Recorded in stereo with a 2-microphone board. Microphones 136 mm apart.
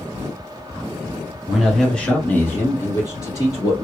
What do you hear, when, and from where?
1.5 s a man speaking: centre (ahead or behind), 1.1 m; by 3.9 s 25° left (ahead or behind), 1.5 m